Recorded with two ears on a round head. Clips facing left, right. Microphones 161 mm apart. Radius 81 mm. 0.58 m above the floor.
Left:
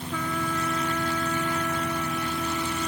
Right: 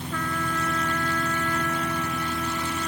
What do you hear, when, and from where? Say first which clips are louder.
0.1 s a trumpet: left 1 dB; 5° left (ahead or behind)